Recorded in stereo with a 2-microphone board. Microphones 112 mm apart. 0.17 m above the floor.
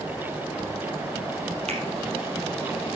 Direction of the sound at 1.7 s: 75° right (ahead or behind).